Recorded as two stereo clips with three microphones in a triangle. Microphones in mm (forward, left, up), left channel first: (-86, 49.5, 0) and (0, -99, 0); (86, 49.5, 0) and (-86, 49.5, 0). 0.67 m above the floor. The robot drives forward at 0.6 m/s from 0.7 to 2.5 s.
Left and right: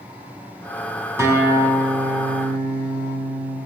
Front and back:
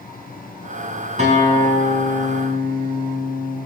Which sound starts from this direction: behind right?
A guitar, at 1.2 s.